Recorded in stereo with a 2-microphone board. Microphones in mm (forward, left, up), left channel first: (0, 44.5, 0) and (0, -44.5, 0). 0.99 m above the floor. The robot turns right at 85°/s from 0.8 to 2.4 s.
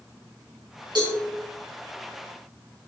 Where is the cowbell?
60° right (ahead or behind), 4 m; by 1.2 s 75° right (ahead or behind), 4 m.